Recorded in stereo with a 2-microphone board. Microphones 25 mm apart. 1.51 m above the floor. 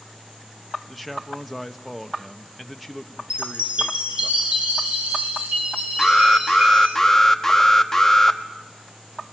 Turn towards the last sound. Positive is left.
turn(degrees=10)  # may be behind; listen again after turning